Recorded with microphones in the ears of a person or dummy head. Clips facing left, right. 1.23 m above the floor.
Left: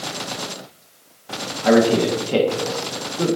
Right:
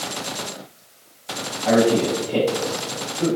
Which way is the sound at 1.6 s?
75° left (ahead or behind).